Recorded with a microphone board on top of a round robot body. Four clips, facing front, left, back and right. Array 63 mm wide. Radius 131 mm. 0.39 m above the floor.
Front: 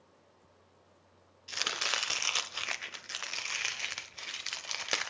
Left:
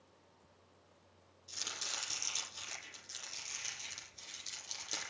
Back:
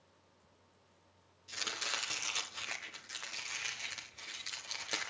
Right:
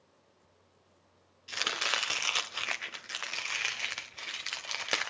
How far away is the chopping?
About 0.9 m.